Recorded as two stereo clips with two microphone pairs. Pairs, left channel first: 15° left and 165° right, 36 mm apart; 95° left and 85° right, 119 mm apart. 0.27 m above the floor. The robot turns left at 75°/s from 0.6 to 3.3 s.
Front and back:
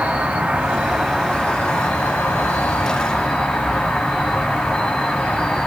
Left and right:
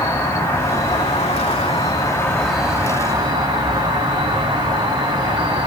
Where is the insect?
155° left, 1.0 m; by 5.7 s 50° right, 1.0 m.